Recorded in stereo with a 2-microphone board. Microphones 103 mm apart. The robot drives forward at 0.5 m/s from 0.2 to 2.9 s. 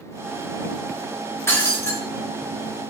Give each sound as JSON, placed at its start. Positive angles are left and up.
{"t": 1.5, "sound": "breaking glass", "side_deg": 25, "distance_m": 3.0}